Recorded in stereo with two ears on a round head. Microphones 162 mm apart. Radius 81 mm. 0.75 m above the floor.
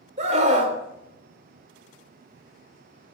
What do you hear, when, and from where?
0.2 s a scream: 40° right (ahead or behind), 2.5 m